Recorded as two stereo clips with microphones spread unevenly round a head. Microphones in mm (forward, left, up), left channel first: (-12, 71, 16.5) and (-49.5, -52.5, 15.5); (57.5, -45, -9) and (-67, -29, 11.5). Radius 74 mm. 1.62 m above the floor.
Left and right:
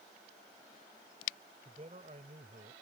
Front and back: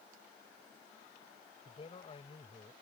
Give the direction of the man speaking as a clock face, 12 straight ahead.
2 o'clock.